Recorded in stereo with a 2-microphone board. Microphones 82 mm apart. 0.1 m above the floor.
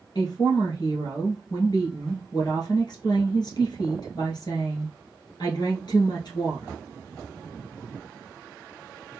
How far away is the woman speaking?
About 2.0 m.